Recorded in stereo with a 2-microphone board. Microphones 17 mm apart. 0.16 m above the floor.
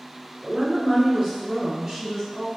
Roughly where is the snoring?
I don't hear snoring.